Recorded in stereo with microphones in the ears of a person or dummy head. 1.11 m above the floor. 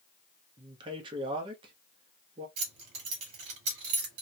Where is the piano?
I don't hear a piano.